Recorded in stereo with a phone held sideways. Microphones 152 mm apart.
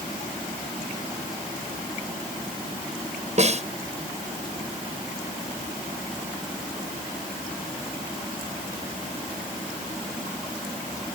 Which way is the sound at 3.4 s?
50° right (ahead or behind).